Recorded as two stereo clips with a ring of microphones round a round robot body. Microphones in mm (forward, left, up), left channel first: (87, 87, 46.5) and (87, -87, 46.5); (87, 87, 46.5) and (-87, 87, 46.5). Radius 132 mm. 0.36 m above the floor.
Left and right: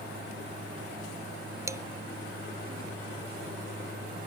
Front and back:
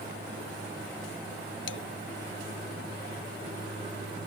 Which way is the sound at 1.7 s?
15° right.